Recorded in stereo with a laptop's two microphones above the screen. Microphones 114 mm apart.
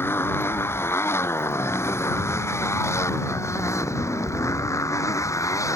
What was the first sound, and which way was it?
A motorcycle, 20° left (ahead or behind).